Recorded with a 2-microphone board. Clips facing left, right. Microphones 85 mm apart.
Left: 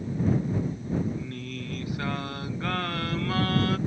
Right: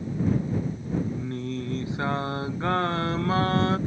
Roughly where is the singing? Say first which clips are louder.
Right 4 dB; right.